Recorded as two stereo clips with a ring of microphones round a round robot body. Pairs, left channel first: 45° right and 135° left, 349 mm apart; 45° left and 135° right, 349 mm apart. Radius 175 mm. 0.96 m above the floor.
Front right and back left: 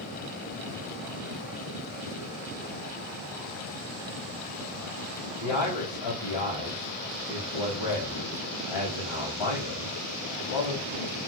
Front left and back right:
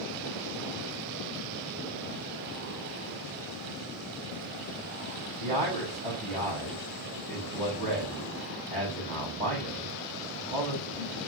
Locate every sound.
5.4 s a man speaking: 65° right, 6 m